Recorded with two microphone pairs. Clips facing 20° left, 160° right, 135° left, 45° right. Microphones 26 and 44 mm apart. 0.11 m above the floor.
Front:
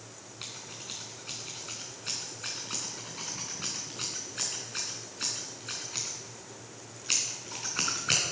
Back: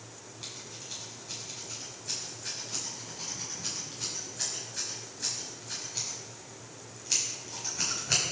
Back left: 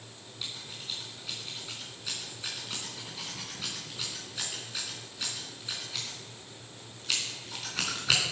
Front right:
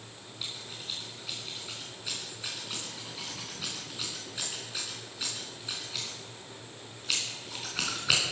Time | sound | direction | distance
0.4 | scissors | 40° left | 4.5 m